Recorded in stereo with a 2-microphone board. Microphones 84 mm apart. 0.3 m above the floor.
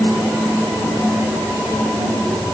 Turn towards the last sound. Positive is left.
No sound to turn to.